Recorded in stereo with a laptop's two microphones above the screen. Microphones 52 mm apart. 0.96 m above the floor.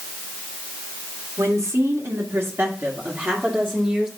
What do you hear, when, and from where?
1.4 s a woman speaking: 75° right (ahead or behind), 1.9 m; by 4.1 s 10° right (ahead or behind), 2 m